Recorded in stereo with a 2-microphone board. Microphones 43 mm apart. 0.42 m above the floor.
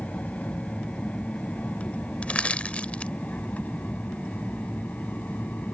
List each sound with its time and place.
0.0 s an aircraft: 35° left (ahead or behind); by 5.7 s 40° left (ahead or behind)
2.2 s crushing: 30° left (ahead or behind)